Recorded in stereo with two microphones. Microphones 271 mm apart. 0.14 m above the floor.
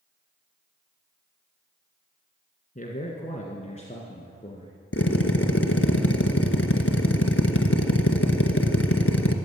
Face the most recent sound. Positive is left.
turn(degrees=55)  # may be behind; listen again after turning